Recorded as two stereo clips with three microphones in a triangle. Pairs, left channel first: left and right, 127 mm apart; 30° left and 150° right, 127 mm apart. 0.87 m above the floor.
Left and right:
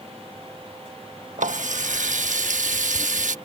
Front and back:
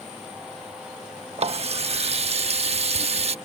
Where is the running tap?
110° right.